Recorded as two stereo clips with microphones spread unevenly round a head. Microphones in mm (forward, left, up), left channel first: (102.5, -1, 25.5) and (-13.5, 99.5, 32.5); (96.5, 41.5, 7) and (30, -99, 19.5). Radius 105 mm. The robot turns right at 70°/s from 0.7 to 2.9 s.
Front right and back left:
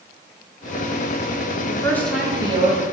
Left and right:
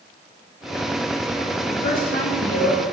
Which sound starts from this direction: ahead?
A woman speaking, at 1.7 s.